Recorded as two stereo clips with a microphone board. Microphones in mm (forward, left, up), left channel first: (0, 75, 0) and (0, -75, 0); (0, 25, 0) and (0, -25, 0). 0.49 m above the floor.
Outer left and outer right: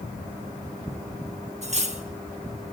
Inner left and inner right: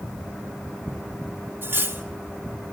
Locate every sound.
1.6 s cutlery clinking: 50° right (ahead or behind), 0.6 m